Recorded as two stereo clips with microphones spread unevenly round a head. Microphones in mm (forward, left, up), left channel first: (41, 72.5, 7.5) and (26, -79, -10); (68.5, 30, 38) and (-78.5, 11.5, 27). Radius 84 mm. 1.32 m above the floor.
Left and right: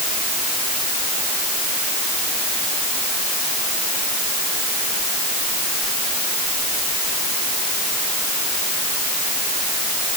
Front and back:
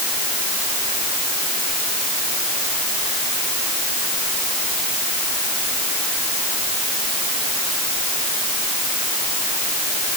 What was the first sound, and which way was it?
Only background noise.